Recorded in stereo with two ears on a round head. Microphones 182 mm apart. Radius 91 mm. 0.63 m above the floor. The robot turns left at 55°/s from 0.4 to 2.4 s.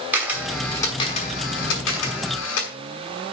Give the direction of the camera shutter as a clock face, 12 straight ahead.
6 o'clock.